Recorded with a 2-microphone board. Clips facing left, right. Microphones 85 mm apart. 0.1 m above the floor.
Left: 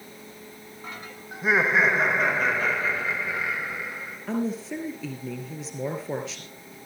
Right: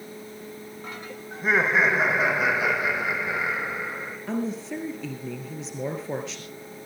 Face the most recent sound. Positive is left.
turn(degrees=0)  # may be behind; listen again after turning